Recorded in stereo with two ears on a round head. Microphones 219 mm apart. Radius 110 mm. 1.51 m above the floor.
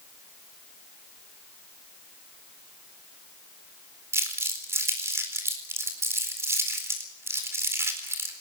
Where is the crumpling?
10° right (ahead or behind), 4 m.